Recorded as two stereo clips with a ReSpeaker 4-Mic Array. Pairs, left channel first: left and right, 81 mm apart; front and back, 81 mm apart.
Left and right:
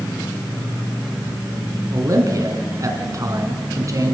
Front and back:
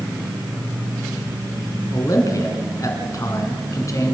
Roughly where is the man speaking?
Ahead right.